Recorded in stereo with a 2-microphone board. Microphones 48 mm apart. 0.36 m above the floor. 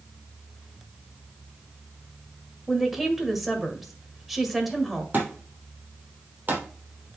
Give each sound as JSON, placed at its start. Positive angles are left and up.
{"t": 2.7, "sound": "a woman speaking", "side_deg": -5, "distance_m": 1.8}
{"t": 5.1, "sound": "a thud", "side_deg": -40, "distance_m": 3.0}